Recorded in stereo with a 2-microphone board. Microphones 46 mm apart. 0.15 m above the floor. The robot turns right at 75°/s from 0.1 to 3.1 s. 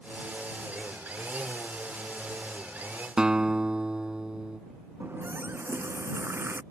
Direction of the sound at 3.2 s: 20° right (ahead or behind).